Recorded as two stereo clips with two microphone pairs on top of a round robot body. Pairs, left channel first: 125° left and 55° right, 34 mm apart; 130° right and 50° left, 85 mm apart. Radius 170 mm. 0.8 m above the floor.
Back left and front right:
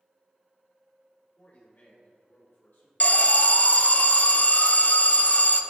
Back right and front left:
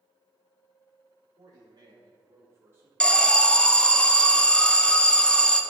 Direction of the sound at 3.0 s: 145° left.